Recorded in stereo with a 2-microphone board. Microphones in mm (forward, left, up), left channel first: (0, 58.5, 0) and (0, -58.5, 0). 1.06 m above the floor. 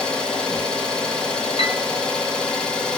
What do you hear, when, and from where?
0.0 s an engine running: 10° left (ahead or behind), 1.5 m
1.6 s a piano: 60° left (ahead or behind), 1.5 m